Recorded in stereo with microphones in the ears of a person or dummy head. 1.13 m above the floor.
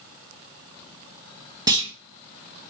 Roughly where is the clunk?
Centre.